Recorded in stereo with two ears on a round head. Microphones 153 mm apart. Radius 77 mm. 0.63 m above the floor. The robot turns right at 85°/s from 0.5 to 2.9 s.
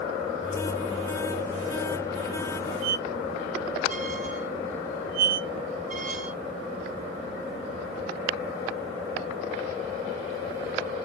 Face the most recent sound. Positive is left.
turn(degrees=-50)  # may be behind; listen again after turning